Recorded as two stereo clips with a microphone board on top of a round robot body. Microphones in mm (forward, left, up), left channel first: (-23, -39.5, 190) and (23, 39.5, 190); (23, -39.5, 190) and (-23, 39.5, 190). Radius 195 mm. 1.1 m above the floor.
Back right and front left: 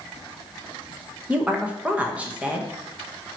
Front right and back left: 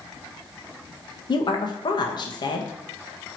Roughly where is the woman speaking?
Ahead.